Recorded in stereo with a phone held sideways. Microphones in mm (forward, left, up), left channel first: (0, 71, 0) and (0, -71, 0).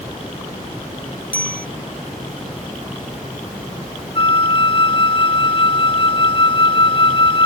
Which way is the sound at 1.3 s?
75° left (ahead or behind).